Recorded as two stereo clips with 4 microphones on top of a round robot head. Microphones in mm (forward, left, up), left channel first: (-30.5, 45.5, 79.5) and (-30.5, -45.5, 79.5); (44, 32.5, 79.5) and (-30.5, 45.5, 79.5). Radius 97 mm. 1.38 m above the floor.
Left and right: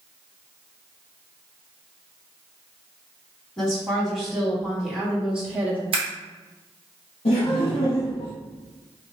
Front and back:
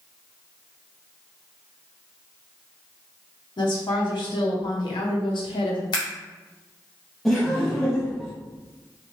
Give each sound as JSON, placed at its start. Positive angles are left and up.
{"t": 3.6, "sound": "a woman speaking", "azimuth_deg": 5, "distance_m": 2.0}
{"t": 5.9, "sound": "scissors", "azimuth_deg": -50, "distance_m": 0.8}
{"t": 7.2, "sound": "laughter", "azimuth_deg": 80, "distance_m": 0.8}